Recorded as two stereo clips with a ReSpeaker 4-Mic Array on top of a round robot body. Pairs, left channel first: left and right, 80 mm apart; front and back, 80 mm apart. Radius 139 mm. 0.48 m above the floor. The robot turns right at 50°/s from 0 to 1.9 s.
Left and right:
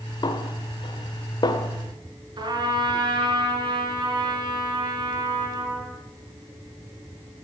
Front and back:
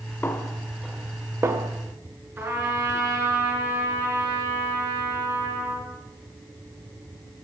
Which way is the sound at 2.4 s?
120° right.